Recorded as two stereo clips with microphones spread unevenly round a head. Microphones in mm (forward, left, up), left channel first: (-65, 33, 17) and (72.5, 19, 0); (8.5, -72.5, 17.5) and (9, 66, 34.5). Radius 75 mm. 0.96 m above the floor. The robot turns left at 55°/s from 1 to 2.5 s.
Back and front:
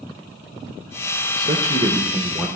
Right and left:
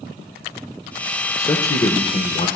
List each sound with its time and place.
1.4 s a man speaking: 30° right, 1.0 m; by 2.5 s 90° right, 1.0 m